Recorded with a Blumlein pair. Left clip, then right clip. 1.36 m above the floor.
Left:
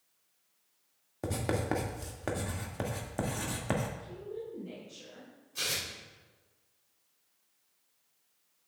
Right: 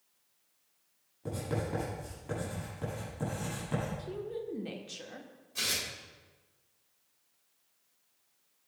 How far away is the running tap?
No running tap in this recording.